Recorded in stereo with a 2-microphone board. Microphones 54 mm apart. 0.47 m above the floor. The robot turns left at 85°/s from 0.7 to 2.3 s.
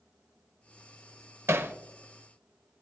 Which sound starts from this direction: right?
Hammering, at 1.5 s.